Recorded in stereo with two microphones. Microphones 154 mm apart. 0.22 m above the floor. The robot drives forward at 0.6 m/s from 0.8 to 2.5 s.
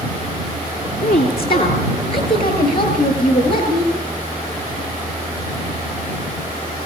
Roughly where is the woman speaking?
Left.